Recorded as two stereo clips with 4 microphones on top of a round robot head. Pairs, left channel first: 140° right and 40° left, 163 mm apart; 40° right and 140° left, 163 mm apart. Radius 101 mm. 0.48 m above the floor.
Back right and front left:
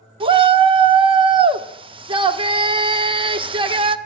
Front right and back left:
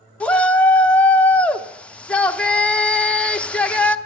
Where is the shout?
35° left, 0.8 m.